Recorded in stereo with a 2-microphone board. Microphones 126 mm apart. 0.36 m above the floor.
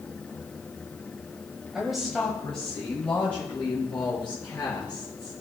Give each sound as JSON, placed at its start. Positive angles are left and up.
{"t": 1.7, "sound": "a woman speaking", "side_deg": -5, "distance_m": 1.7}